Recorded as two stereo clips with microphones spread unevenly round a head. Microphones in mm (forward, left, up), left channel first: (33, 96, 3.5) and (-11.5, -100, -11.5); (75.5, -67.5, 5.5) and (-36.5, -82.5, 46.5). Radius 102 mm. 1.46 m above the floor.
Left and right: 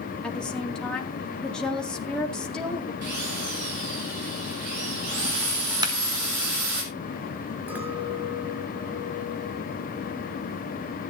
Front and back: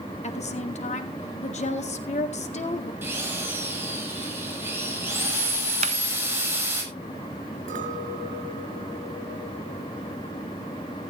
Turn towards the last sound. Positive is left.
turn(degrees=175)